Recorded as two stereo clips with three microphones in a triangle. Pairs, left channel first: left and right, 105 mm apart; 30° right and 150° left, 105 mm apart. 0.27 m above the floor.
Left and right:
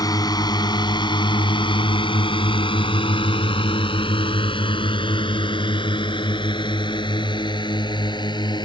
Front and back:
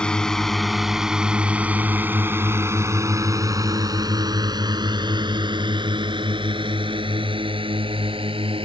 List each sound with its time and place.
0.0 s a drone: 50° left; by 8.7 s 130° left